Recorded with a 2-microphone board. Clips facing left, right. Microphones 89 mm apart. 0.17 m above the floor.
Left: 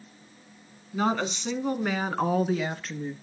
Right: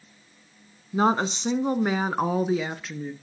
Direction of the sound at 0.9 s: 35° right (ahead or behind).